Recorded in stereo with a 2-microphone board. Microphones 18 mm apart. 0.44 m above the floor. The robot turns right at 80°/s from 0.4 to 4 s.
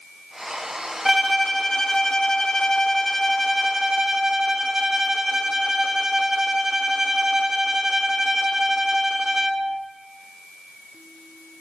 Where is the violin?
5° right, 0.5 m; by 9.8 s 130° right, 0.5 m.